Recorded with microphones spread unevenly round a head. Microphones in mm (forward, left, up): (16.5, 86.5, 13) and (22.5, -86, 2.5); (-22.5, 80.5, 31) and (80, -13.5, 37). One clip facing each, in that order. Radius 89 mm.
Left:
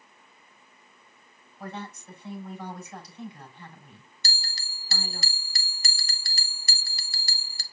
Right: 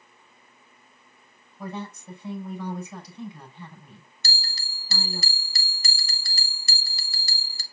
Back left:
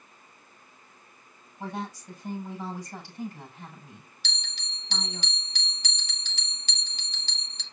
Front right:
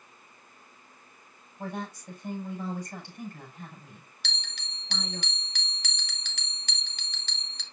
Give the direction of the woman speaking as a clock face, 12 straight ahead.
3 o'clock.